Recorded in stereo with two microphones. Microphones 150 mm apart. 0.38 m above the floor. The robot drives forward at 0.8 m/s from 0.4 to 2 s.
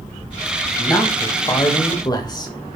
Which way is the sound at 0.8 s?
15° left (ahead or behind).